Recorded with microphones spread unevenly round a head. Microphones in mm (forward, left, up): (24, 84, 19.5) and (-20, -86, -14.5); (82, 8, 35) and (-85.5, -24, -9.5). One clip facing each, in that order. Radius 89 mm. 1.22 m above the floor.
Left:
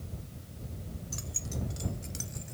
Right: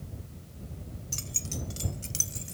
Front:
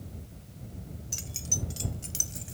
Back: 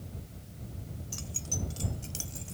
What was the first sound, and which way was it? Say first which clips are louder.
Keys jangling: right 2 dB, back 1 dB; 50° right.